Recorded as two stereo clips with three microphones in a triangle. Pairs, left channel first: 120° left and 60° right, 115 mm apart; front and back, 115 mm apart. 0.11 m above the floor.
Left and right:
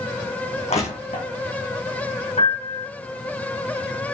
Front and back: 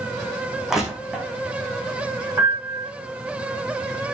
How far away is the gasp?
I don't hear a gasp.